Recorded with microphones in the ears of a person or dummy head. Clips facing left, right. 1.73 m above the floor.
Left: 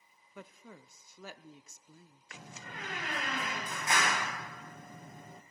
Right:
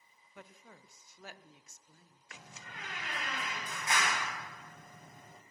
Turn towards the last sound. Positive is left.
turn(degrees=50)  # may be behind; listen again after turning